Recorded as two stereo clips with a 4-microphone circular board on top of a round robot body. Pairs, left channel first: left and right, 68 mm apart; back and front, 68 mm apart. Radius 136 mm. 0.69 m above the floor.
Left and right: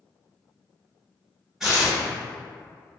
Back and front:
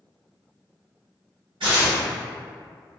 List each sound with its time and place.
1.6 s tearing paper: 5° right, 1.1 m